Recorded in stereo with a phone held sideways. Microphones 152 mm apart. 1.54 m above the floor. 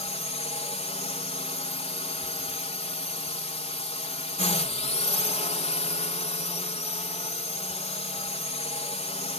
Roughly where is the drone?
Left.